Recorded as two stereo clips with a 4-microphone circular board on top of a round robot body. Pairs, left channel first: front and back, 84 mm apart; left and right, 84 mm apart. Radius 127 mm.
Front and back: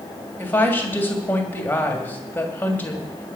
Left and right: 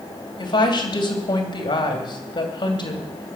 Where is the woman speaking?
70° left, 3 m.